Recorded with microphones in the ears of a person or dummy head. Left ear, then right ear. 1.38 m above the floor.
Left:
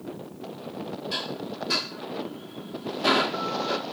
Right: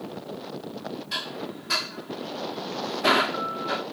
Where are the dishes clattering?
20° right (ahead or behind).